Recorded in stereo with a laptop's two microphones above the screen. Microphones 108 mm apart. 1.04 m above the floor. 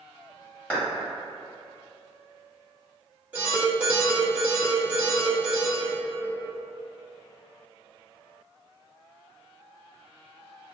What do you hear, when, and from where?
0.7 s a clap: 10° left (ahead or behind), 1.5 m
3.3 s an alarm: 15° right (ahead or behind), 1.4 m